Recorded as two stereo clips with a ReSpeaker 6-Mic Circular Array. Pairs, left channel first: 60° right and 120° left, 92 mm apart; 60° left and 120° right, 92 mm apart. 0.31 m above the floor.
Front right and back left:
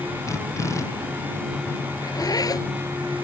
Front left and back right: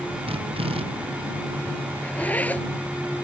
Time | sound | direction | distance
0.3 | a drill | 115° right | ?
2.0 | a zipper | 15° right | ?